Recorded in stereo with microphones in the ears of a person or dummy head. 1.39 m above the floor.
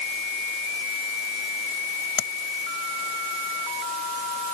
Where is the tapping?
55° left (ahead or behind).